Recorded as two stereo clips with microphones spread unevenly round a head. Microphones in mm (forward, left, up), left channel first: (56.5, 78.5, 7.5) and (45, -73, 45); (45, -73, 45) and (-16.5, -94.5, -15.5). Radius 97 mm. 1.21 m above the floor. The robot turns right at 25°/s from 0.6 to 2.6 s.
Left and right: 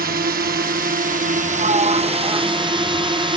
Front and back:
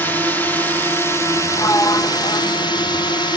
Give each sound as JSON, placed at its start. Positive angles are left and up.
{"t": 0.0, "sound": "a drone", "azimuth_deg": -80}
{"t": 1.6, "sound": "a sliding door", "azimuth_deg": -45}